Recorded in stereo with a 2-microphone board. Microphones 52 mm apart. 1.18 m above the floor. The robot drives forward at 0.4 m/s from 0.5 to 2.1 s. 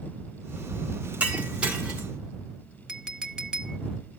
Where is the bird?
No bird in this recording.